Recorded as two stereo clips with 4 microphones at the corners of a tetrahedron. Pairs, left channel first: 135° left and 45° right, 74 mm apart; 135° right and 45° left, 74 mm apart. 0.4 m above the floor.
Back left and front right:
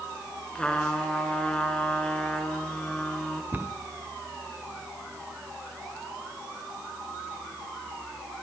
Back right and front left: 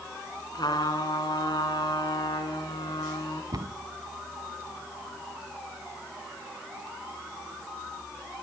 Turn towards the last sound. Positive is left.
turn(degrees=15)